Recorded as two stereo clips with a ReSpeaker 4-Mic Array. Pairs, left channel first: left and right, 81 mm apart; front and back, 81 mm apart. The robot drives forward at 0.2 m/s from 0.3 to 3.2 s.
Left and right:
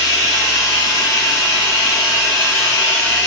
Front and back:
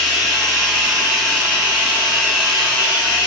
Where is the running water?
90° right, 4 m; by 3.3 s 100° right, 4 m.